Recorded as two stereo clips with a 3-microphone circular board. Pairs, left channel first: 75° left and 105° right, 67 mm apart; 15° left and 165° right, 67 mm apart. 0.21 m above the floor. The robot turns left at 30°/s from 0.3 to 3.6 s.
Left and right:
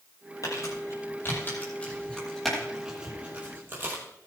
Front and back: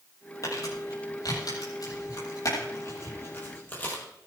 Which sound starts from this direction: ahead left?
Crumpling, at 0.4 s.